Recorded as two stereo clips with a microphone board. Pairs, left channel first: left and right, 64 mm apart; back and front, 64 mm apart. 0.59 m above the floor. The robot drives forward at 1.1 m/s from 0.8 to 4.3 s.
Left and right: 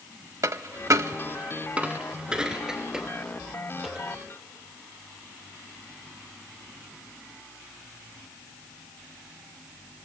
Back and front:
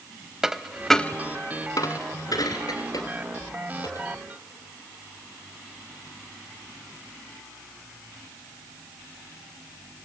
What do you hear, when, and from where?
0.4 s a dropped coin: 80° right, 0.5 m; by 4.0 s 175° right, 3.5 m